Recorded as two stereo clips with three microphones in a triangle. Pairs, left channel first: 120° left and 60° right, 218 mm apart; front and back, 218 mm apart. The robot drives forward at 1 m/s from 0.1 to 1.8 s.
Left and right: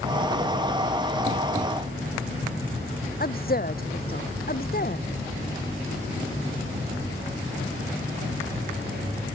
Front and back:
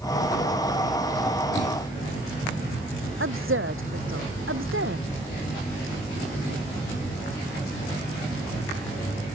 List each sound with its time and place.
3.2 s a woman speaking: 165° left